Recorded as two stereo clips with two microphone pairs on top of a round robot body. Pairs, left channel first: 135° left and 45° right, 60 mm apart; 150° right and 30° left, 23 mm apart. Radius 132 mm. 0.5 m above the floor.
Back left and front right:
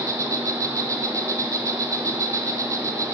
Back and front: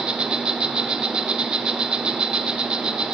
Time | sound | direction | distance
0.0 | an insect | 10° right | 0.8 m